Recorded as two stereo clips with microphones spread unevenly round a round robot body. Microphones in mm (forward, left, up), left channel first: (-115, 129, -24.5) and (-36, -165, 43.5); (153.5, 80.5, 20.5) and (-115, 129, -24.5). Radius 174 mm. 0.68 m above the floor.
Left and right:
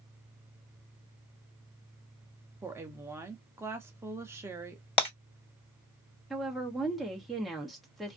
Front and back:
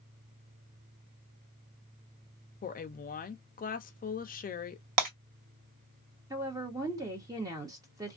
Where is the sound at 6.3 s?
160° left, 0.9 m.